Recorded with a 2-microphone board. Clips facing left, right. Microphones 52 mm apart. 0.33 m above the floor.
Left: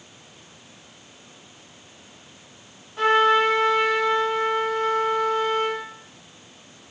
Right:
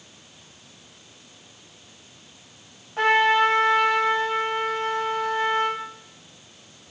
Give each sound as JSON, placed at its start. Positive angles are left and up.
{"t": 3.0, "sound": "a trumpet", "side_deg": -60, "distance_m": 1.2}